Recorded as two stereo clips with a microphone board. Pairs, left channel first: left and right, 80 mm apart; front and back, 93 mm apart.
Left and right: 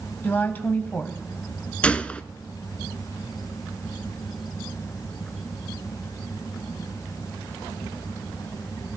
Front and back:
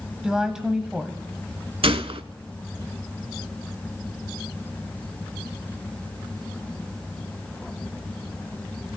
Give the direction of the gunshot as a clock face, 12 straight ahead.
7 o'clock.